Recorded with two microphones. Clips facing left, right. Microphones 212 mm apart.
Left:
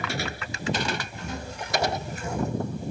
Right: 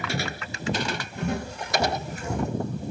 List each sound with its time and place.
0.1 s footsteps: 40° right (ahead or behind), 1.4 m; by 2.5 s 75° right (ahead or behind), 1.9 m